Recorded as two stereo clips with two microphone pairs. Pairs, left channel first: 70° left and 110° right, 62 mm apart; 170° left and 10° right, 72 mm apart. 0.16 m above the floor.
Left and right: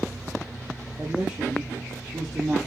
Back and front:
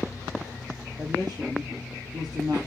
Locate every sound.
1.0 s a woman speaking: 45° right, 4 m